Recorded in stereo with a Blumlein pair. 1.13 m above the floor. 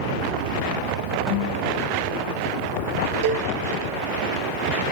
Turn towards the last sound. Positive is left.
turn(degrees=-50)